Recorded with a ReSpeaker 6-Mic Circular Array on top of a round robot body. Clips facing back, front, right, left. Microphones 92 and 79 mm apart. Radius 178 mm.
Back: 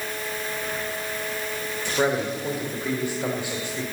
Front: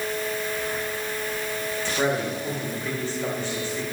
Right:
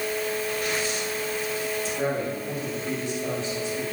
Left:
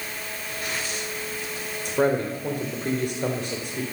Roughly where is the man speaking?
Left.